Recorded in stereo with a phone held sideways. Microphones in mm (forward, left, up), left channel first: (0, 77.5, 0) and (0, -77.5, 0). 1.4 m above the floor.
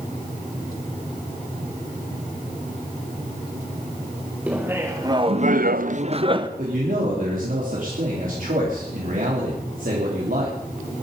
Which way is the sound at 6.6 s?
65° right (ahead or behind).